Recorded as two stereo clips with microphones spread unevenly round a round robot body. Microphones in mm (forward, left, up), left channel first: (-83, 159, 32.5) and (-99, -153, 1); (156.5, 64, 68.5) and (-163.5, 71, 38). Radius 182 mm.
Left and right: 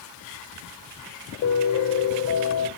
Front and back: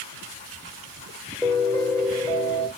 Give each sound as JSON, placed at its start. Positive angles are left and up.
{"t": 1.4, "sound": "a piano", "azimuth_deg": 85, "distance_m": 1.5}